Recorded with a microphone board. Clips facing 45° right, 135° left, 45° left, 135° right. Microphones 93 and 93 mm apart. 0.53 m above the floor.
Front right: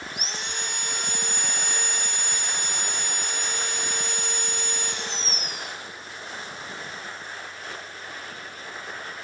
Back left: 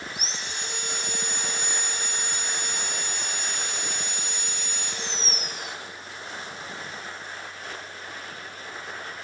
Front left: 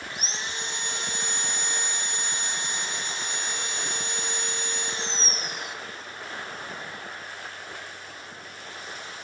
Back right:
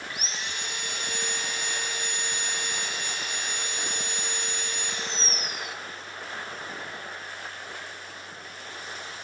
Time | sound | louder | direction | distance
0.1 | sawing | front right 1 dB, front left 3 dB | 15° right | 0.8 m